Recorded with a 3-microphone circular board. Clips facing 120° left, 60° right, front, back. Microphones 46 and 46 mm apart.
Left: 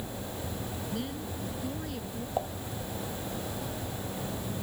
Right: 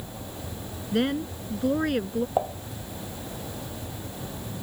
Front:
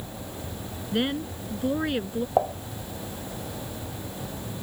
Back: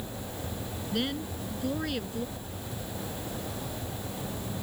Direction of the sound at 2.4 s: 5° left.